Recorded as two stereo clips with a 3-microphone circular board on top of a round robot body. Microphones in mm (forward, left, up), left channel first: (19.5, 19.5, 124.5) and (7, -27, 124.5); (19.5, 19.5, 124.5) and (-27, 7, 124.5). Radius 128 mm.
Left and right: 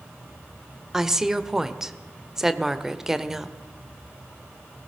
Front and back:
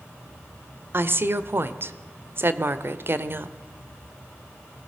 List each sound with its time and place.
0.9 s a woman speaking: 175° left, 1.4 m